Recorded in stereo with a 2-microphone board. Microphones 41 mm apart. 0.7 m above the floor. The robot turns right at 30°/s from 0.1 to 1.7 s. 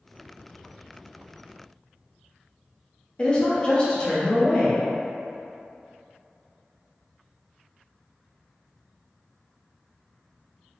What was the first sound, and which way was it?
A woman speaking, 25° left (ahead or behind).